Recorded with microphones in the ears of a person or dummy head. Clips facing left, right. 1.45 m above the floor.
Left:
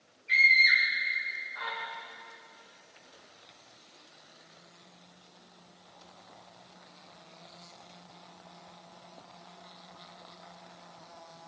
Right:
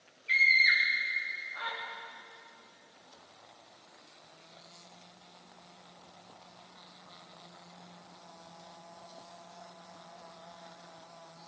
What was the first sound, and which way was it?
A scream, 45° right (ahead or behind).